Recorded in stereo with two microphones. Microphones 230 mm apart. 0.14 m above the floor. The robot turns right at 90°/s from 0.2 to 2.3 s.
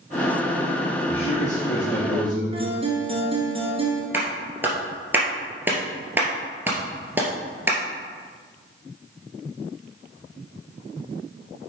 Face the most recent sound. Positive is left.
turn(degrees=-10)  # may be behind; listen again after turning